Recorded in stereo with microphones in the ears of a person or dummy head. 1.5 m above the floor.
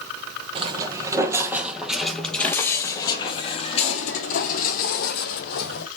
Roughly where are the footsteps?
Right.